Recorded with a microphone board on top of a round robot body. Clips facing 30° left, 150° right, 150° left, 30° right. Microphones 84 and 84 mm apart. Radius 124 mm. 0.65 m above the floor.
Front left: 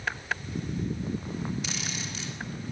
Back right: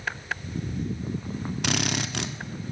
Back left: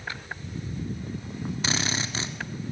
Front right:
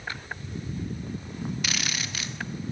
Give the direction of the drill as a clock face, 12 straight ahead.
5 o'clock.